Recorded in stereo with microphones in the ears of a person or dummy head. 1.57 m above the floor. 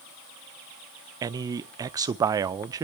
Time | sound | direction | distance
1.2 | a man speaking | 15° right (ahead or behind) | 0.7 m